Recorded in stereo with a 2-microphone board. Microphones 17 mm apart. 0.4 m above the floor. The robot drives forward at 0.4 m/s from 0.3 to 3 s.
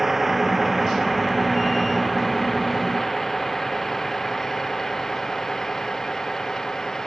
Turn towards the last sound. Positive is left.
turn(degrees=25)  # may be behind; listen again after turning